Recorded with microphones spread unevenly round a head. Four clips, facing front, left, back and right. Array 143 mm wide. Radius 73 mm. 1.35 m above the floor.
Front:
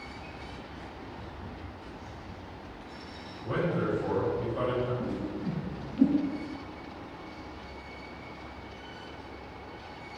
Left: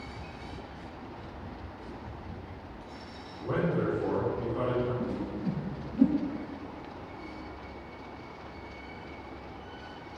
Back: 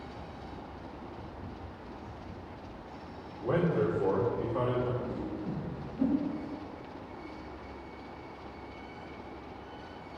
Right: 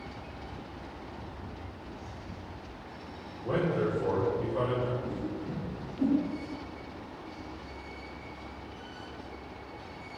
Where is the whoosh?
70° left, 4 m.